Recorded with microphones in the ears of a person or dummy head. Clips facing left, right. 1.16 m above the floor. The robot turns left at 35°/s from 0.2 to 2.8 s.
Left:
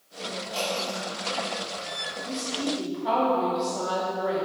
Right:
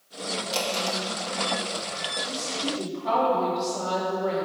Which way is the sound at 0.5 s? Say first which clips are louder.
Right 1 dB; 75° right (ahead or behind).